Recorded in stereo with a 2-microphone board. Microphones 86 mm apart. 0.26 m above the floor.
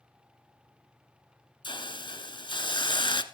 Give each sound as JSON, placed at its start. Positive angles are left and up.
{"t": 1.6, "sound": "a hiss", "side_deg": 70, "distance_m": 1.0}